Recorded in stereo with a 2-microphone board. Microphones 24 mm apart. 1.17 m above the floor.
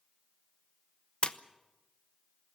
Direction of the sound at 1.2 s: 50° left (ahead or behind).